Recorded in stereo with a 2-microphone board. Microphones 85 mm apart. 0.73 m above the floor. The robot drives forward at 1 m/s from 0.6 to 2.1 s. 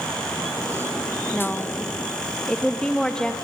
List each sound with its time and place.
1.3 s a woman speaking: 10° left (ahead or behind), 0.8 m